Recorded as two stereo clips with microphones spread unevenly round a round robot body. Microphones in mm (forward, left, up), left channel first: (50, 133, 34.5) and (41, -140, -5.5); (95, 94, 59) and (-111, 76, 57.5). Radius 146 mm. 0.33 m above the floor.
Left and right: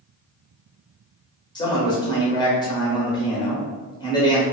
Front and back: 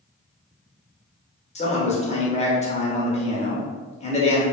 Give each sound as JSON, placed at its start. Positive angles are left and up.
{"t": 1.6, "sound": "a man speaking", "azimuth_deg": 15, "distance_m": 0.9}